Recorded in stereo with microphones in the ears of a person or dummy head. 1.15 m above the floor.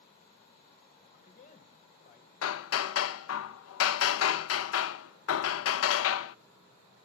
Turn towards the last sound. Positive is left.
turn(degrees=85)